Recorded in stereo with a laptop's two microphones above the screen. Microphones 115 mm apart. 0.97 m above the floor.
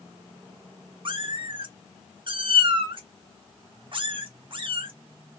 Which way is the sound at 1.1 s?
45° right (ahead or behind).